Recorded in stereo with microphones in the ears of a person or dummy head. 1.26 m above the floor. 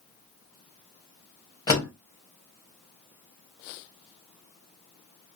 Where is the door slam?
20° left (ahead or behind), 1.4 m.